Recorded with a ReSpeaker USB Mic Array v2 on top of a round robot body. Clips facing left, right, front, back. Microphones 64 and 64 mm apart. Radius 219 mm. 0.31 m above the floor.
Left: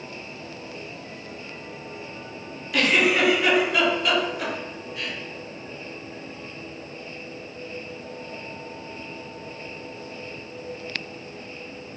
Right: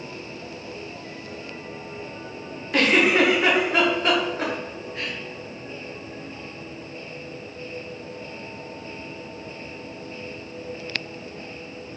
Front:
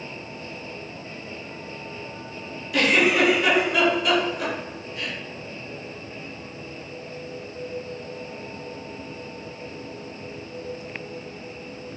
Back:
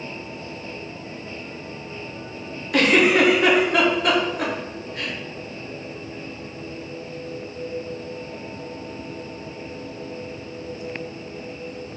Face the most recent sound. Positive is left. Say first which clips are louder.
# right 2 dB, back 3 dB
turn(degrees=-145)